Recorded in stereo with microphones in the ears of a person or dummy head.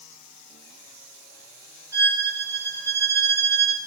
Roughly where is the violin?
Centre.